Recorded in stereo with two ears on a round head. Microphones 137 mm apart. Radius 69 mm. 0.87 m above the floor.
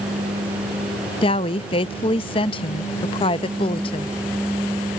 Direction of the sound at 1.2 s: 35° left (ahead or behind).